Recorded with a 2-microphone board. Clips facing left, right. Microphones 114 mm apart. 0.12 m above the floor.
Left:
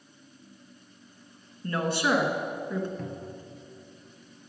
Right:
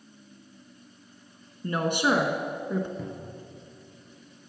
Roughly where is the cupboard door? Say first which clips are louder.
Even; centre.